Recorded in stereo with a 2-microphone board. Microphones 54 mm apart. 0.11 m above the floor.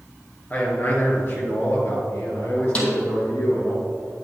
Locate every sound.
0.5 s a man speaking: 30° left (ahead or behind), 2 m; by 3.8 s 60° left (ahead or behind), 4 m
2.8 s a snare drum: 20° left (ahead or behind), 2.0 m